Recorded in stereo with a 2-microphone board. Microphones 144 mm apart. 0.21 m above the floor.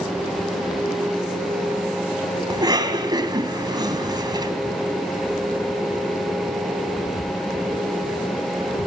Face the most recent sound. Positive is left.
turn(degrees=-30)  # may be behind; listen again after turning